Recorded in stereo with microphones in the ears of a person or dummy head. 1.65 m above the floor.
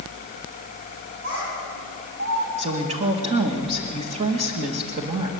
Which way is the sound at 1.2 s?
80° right.